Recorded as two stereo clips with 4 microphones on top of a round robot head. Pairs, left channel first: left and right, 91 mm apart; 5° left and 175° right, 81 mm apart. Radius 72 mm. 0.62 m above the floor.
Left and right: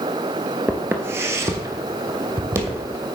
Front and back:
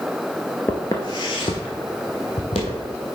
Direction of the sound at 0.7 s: 40° right.